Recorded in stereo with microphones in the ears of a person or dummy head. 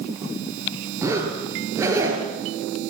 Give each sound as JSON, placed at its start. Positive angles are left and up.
{"t": 1.0, "sound": "a zipper", "side_deg": -15, "distance_m": 5.0}